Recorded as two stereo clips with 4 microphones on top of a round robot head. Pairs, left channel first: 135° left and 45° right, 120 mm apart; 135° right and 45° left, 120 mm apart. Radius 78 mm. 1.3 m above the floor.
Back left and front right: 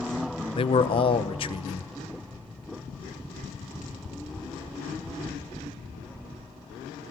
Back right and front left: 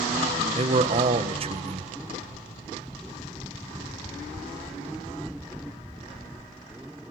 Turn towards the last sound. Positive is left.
turn(degrees=90)